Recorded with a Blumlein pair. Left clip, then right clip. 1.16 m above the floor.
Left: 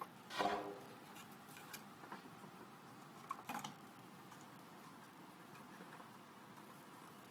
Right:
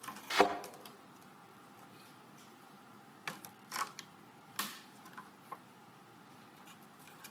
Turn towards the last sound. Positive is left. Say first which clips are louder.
# right 11 dB
turn(degrees=-40)